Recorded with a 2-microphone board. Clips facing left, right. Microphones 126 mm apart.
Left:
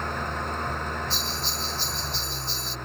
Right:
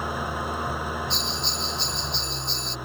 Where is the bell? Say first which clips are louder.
Right 2 dB; 5° left (ahead or behind).